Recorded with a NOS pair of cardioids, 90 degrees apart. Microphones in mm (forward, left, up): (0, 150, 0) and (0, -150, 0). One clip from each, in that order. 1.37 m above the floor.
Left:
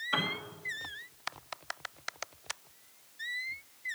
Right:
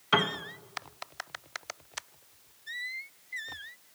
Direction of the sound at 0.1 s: 65° right.